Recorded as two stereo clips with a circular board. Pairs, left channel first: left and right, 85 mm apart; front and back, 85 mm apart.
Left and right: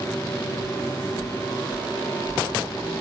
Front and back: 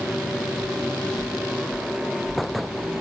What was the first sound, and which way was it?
Footsteps, 30° left.